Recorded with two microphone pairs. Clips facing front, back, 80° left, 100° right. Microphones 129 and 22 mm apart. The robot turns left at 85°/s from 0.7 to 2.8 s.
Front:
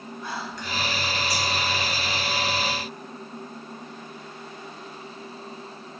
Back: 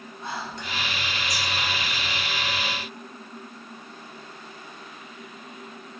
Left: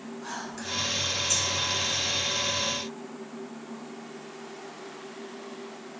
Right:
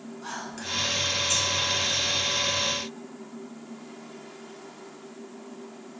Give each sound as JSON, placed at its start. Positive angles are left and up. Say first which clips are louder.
{"t": 0.2, "sound": "whispering", "louder": "back 1 dB, right 2 dB", "azimuth_deg": -160, "distance_m": 1.2}